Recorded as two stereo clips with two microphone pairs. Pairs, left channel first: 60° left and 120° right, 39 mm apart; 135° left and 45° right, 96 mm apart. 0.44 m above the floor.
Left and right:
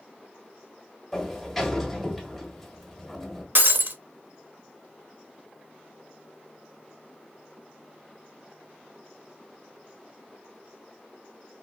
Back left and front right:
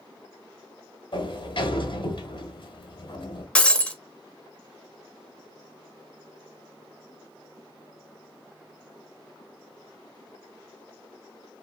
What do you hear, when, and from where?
1.1 s a sliding door: 150° left, 1.2 m
3.5 s breaking glass: 145° right, 0.7 m